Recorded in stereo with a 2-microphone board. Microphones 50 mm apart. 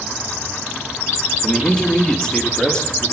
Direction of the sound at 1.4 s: 10° left (ahead or behind).